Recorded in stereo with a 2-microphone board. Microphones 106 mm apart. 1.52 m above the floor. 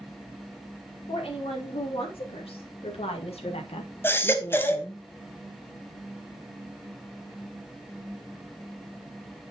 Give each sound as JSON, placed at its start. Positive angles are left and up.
{"t": 1.1, "sound": "a woman speaking", "side_deg": 65, "distance_m": 4.5}
{"t": 4.0, "sound": "a baby crying", "side_deg": 20, "distance_m": 1.2}